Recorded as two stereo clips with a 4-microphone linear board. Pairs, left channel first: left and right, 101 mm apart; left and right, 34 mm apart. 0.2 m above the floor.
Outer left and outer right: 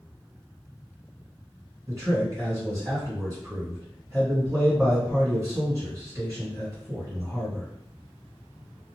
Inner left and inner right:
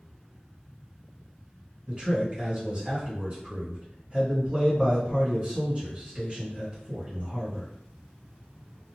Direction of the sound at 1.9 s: 30° right (ahead or behind).